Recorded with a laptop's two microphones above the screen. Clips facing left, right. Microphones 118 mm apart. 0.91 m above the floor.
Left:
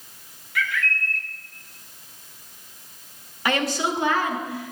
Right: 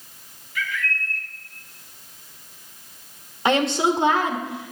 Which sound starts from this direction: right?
A woman speaking, at 3.5 s.